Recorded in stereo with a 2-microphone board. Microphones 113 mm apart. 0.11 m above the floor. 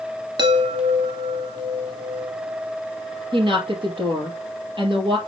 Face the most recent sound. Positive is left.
turn(degrees=-45)  # may be behind; listen again after turning